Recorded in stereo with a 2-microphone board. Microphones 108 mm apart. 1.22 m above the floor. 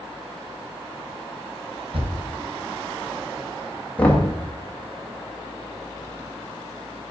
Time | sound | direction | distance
1.9 | a thud | 60° right (ahead or behind) | 2 m
4.0 | knocking | 10° left (ahead or behind) | 1.2 m